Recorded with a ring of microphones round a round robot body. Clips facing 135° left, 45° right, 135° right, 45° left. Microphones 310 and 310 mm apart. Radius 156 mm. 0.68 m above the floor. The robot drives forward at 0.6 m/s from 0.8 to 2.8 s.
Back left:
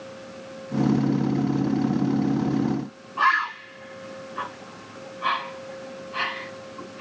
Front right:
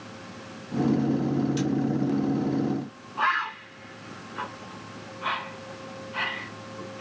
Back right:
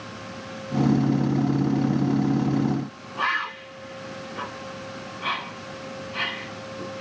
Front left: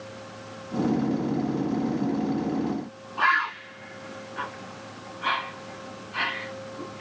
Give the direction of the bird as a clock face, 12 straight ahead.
7 o'clock.